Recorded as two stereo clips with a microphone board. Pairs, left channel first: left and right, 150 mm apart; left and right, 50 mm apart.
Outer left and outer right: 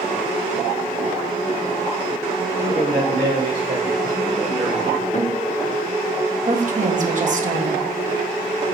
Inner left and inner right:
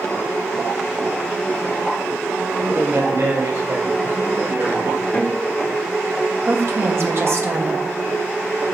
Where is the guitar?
55° left (ahead or behind), 1.7 m.